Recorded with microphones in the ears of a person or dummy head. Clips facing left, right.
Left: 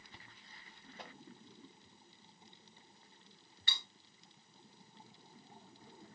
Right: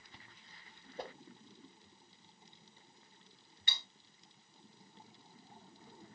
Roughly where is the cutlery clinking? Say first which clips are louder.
Even; centre.